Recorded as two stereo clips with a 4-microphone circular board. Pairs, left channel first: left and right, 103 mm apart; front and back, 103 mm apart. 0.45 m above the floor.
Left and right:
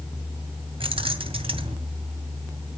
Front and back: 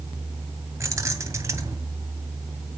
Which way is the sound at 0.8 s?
120° right.